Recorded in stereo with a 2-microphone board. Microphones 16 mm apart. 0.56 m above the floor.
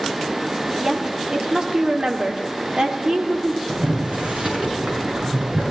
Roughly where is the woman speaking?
Right.